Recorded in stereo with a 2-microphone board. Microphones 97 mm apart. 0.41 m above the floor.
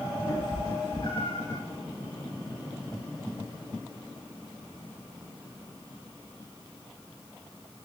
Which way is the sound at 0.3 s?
50° left (ahead or behind).